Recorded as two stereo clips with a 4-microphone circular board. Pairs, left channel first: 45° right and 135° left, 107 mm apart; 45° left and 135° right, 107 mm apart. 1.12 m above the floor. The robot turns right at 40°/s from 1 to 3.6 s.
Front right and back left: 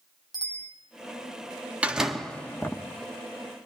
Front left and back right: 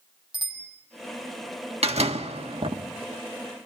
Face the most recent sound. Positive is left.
turn(degrees=-75)